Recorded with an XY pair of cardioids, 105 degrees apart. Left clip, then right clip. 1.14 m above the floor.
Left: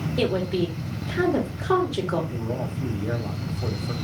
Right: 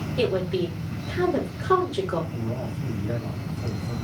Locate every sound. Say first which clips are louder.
0.2 s a woman speaking: even; 20° left, 2.5 m
2.3 s a man speaking: left 2 dB; 65° left, 1.7 m